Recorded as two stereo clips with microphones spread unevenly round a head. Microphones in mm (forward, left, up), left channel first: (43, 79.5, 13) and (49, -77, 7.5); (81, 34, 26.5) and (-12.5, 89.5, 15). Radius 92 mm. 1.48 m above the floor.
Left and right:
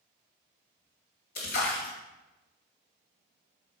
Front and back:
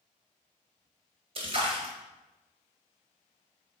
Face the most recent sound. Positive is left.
turn(degrees=120)